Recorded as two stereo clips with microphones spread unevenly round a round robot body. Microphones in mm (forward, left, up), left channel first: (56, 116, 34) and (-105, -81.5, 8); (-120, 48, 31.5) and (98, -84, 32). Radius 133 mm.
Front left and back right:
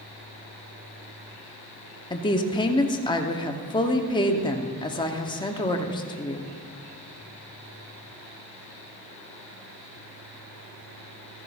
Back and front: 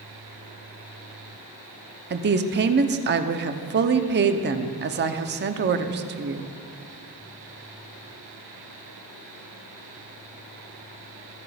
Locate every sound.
2.1 s a woman speaking: 20° right, 0.9 m